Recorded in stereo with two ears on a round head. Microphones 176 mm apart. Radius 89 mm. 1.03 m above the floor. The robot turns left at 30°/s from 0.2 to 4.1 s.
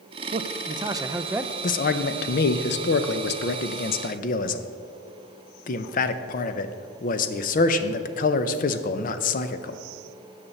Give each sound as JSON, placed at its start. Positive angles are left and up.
{"t": 0.3, "sound": "a man speaking", "azimuth_deg": -135, "distance_m": 0.5}
{"t": 1.6, "sound": "a man speaking", "azimuth_deg": 125, "distance_m": 0.6}